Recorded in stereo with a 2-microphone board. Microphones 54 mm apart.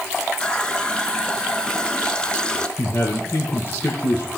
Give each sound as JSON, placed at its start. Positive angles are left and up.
{"t": 0.4, "sound": "a running tap", "side_deg": 15, "distance_m": 1.2}
{"t": 2.8, "sound": "a man speaking", "side_deg": 60, "distance_m": 2.0}